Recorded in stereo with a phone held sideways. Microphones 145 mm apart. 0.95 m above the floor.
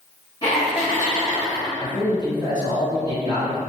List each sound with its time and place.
0.4 s laughter: 25° left (ahead or behind), 1.2 m
1.8 s a man speaking: 30° right (ahead or behind), 1.7 m